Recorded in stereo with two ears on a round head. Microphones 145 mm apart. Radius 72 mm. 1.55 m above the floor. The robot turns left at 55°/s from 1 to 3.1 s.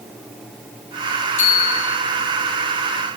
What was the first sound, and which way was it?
A bicycle bell, 95° left.